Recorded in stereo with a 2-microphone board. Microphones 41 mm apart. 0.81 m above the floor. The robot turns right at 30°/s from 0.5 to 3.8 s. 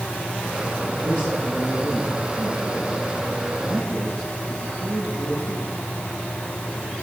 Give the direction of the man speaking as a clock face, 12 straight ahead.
5 o'clock.